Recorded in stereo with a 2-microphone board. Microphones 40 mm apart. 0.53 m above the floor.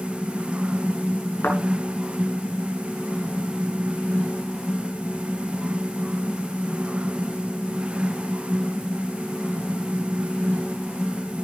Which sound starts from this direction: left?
A thud, at 1.4 s.